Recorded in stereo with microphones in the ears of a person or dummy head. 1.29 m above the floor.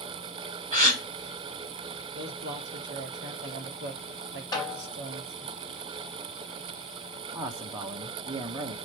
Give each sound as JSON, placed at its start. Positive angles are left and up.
{"t": 0.7, "sound": "a gasp", "side_deg": -40, "distance_m": 3.5}
{"t": 2.1, "sound": "a man speaking", "side_deg": -60, "distance_m": 2.5}
{"t": 4.5, "sound": "a snare drum", "side_deg": 20, "distance_m": 3.0}
{"t": 7.3, "sound": "a man speaking", "side_deg": -20, "distance_m": 1.1}